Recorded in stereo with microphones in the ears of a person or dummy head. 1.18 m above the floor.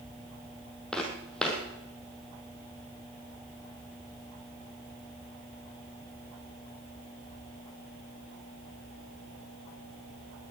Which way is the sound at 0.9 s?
Centre (ahead or behind).